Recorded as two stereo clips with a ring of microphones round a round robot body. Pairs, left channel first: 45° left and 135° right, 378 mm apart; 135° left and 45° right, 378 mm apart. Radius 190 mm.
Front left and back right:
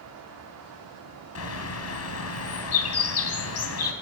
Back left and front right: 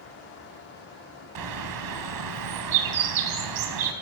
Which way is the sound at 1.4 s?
10° right.